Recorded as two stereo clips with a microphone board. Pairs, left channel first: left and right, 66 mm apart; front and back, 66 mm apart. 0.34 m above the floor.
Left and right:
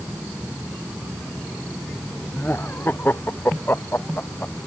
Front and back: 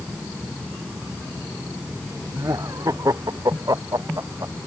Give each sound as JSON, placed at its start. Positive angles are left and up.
{"t": 2.3, "sound": "laughter", "azimuth_deg": 150}